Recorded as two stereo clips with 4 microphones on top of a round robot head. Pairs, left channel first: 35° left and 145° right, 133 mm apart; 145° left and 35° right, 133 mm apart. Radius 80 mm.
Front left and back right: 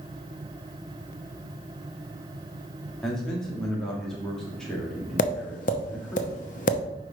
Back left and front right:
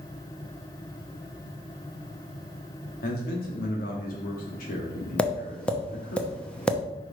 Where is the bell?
I don't hear a bell.